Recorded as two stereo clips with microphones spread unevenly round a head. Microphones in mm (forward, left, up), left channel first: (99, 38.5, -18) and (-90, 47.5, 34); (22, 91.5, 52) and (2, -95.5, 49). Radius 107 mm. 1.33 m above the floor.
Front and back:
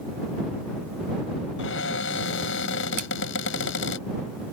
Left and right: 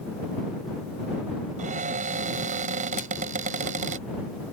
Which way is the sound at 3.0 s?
135° left.